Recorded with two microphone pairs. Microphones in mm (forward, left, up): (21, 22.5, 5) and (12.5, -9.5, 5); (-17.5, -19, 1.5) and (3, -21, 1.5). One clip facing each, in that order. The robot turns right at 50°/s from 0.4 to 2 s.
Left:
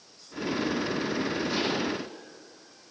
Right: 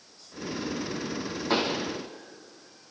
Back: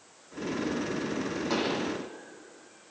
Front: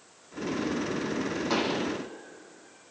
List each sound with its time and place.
1.5 s a pop: 85° right, 7.5 m; by 1.8 s 65° right, 7.5 m